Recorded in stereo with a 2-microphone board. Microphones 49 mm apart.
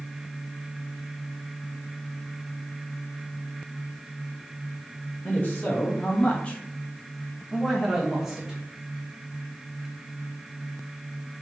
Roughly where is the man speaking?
Left.